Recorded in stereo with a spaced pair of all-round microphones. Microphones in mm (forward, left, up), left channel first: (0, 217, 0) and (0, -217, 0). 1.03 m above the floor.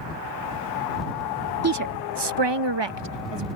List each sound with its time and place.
1.6 s a woman speaking: 35° right (ahead or behind); by 3.5 s 75° right (ahead or behind)